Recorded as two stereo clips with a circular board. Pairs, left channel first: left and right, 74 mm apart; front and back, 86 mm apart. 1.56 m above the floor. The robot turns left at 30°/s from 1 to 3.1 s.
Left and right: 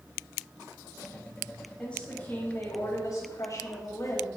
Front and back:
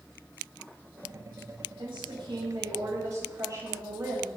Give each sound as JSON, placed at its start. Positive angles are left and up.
{"t": 1.8, "sound": "a woman speaking", "azimuth_deg": 170, "distance_m": 7.5}